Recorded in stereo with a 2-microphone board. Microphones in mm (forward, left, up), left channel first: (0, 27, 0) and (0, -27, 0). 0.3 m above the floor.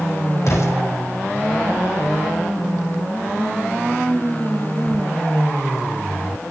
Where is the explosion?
65° left (ahead or behind), 5 m.